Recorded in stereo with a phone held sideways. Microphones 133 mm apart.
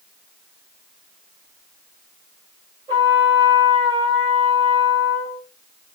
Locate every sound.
2.9 s a trumpet: 35° right (ahead or behind), 4 m